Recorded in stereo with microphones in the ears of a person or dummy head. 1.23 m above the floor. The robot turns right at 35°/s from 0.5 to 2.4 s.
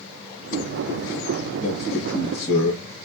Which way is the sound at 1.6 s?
10° left (ahead or behind).